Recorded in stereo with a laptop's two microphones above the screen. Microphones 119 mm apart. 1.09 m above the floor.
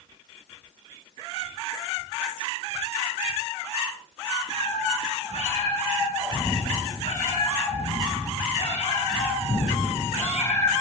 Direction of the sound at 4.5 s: 65° left (ahead or behind).